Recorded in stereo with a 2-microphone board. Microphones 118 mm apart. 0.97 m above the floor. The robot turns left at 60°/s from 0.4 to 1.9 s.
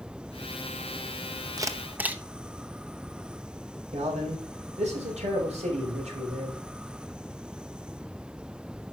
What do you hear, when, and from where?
1.6 s a camera shutter: 30° right (ahead or behind), 0.8 m; by 2.2 s 15° right (ahead or behind), 0.8 m
3.9 s a man speaking: 70° right (ahead or behind), 5 m